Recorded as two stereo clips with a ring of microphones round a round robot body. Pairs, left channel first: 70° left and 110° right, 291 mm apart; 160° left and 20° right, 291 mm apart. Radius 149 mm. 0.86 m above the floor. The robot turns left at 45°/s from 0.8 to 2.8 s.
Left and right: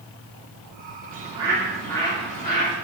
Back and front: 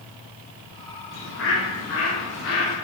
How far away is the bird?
About 3 m.